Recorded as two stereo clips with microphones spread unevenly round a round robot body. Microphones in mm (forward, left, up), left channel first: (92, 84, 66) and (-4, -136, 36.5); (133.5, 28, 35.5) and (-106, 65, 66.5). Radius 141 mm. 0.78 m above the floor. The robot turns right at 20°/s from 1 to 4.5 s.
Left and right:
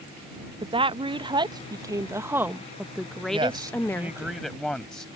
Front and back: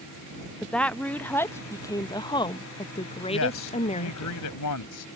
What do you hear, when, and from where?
0.6 s a woman speaking: 80° right; by 4.3 s 15° right
3.3 s a man speaking: 45° right; by 5.0 s 20° right